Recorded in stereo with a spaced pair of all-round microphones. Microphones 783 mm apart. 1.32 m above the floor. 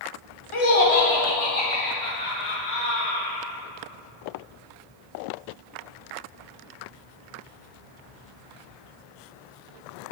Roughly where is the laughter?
Left.